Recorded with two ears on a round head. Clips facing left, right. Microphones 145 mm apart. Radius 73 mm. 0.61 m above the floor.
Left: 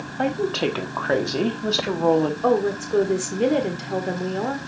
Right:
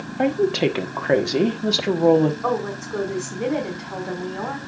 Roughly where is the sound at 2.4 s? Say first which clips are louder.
Left 4 dB; left.